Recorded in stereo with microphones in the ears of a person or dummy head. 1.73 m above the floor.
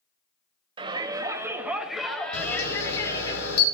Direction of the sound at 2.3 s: 65° left (ahead or behind).